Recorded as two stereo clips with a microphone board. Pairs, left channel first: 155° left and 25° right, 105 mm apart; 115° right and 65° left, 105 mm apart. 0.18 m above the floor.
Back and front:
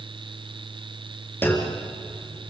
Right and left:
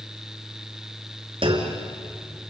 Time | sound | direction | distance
1.4 | a clunk | 90° left | 3.5 m